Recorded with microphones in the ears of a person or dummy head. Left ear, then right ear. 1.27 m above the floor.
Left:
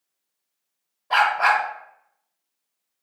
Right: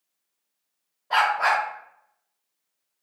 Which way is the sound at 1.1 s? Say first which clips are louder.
Left 3 dB; 20° left (ahead or behind).